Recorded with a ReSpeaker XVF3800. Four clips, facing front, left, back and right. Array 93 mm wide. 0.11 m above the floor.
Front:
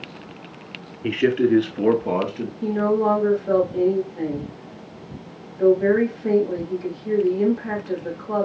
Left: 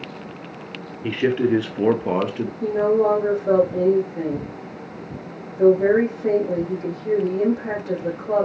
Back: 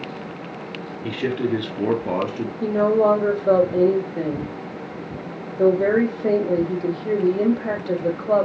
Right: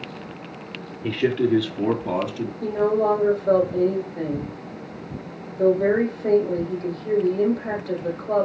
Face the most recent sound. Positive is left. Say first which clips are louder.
# left 2 dB, back 3 dB
turn(degrees=165)